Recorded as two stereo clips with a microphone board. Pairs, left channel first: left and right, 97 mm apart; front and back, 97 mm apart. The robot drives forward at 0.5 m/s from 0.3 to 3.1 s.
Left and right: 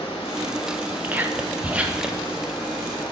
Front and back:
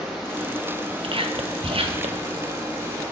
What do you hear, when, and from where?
0.0 s running water: 90° left, 2 m; by 3.1 s 125° left, 2.5 m
1.0 s whispering: 160° right, 0.8 m; by 2.3 s 170° right, 1.4 m